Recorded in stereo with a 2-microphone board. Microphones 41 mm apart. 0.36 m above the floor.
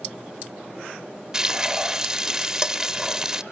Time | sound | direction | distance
1.3 | frying | 15° right (ahead or behind) | 1.0 m